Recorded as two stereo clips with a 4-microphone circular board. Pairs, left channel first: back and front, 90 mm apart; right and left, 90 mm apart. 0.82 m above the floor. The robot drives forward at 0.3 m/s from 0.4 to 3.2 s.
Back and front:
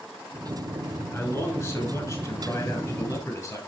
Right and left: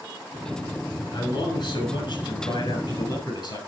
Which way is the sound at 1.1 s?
125° right.